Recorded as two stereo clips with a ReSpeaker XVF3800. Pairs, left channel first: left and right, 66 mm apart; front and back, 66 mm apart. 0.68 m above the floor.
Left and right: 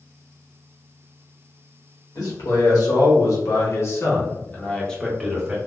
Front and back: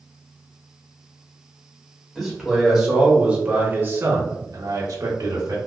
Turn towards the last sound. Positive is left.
turn(degrees=-170)